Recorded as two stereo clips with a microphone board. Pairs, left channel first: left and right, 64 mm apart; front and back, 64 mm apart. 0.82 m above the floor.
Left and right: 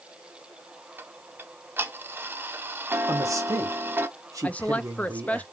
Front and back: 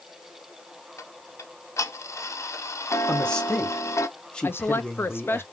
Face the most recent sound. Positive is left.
turn(degrees=30)